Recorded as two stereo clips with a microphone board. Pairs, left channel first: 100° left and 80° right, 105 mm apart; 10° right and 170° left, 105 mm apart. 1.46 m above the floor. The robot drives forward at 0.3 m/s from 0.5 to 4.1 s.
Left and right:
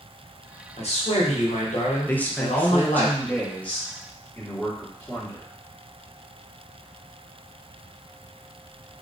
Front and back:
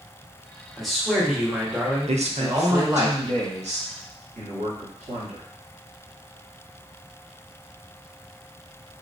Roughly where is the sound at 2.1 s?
Behind.